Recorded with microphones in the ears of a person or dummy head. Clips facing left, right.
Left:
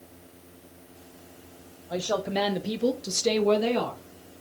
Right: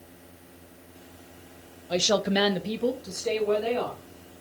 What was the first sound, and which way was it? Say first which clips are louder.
A woman speaking: right 3 dB; 40° right (ahead or behind).